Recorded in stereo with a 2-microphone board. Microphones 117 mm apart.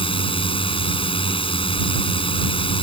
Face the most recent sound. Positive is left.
turn(degrees=55)  # may be behind; listen again after turning